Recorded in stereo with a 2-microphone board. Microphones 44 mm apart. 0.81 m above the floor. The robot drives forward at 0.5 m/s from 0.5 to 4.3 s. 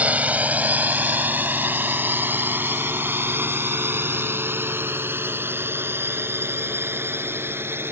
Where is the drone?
35° right (ahead or behind); by 7.9 s 60° right (ahead or behind).